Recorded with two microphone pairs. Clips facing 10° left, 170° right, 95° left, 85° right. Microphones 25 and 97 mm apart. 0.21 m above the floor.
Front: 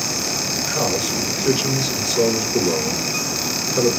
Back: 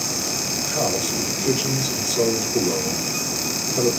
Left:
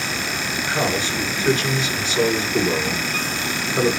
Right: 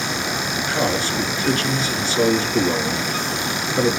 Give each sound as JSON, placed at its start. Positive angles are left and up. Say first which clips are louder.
{"t": 0.7, "sound": "a man speaking", "louder": "front 1 dB, right 1 dB", "azimuth_deg": 25, "distance_m": 2.5}